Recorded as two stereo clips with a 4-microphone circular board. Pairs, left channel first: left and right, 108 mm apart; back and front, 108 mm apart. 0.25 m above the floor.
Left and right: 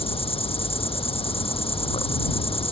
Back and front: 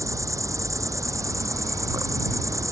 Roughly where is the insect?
Ahead left.